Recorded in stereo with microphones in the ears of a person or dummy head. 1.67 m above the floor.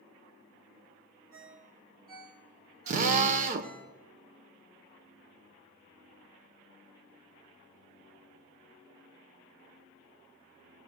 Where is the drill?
40° right (ahead or behind), 0.8 m.